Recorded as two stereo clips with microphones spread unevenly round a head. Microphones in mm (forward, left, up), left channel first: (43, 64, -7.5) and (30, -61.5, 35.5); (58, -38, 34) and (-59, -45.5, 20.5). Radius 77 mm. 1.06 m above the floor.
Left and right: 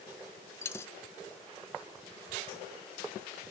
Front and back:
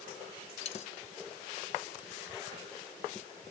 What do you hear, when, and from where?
0.6 s a dropped coin: 5° left, 0.6 m